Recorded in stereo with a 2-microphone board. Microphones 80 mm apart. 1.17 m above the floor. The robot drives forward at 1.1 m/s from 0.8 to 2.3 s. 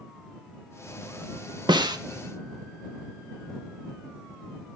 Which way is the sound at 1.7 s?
70° right (ahead or behind).